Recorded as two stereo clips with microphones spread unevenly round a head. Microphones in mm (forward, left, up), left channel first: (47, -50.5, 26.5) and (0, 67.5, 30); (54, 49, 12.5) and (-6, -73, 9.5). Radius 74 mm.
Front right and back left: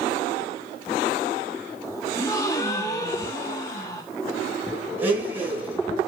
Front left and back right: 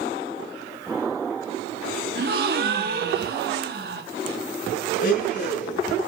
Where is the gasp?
135° right, 1.4 m.